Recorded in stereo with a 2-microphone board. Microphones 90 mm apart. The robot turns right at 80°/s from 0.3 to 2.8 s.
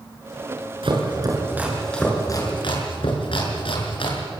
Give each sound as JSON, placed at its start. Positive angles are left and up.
{"t": 0.8, "sound": "chopping", "side_deg": -75, "distance_m": 5.5}